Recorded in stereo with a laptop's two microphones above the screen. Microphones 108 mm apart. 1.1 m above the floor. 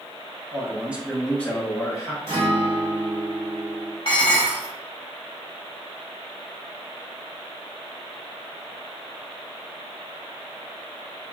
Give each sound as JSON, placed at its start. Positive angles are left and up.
{"t": 0.5, "sound": "a man speaking", "side_deg": -30, "distance_m": 0.6}
{"t": 2.3, "sound": "a guitar", "side_deg": -50, "distance_m": 1.8}
{"t": 4.0, "sound": "dishes clattering", "side_deg": 50, "distance_m": 1.0}